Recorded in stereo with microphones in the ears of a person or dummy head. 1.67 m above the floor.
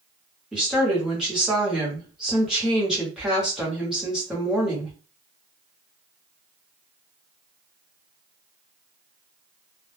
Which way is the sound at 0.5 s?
5° right (ahead or behind).